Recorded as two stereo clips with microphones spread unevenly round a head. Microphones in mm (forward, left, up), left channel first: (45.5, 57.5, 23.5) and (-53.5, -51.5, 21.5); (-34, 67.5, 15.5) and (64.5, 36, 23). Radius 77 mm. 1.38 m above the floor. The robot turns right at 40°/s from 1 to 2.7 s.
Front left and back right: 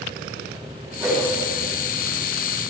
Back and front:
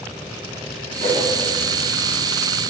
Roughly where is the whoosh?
Ahead right.